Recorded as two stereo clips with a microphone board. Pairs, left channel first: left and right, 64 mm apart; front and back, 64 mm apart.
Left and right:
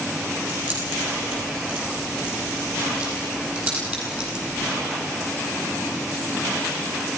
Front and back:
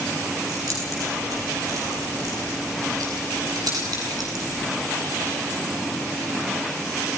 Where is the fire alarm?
No fire alarm in this recording.